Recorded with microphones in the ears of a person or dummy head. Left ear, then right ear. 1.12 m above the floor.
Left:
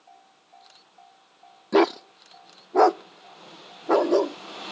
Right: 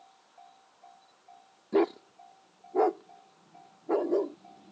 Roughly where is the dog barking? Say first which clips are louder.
Left 7 dB; left.